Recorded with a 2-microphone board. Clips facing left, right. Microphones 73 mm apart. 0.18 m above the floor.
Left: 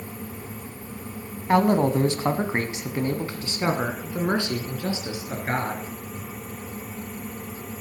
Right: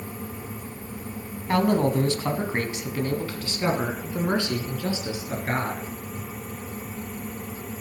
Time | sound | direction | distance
1.5 | a man speaking | 20° left (ahead or behind) | 1.1 m